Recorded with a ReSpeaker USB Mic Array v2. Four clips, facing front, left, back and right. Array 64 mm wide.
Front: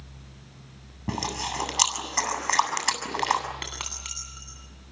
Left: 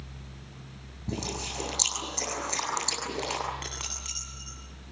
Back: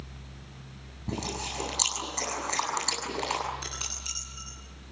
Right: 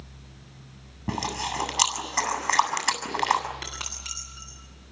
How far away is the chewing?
About 7 m.